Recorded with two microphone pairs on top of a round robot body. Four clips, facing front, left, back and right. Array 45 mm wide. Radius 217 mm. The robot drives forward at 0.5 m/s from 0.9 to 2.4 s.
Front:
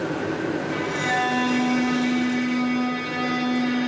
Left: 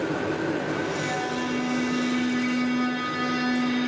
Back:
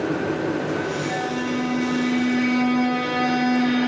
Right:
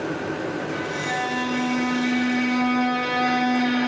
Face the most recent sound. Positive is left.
turn(degrees=-100)